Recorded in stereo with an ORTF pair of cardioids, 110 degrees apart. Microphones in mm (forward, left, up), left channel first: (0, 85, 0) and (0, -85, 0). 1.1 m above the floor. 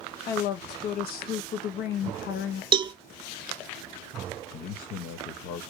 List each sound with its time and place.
0.3 s a woman speaking: 70° left, 1.2 m
2.7 s a cowbell: 30° right, 0.8 m
4.5 s a man speaking: 60° left, 1.0 m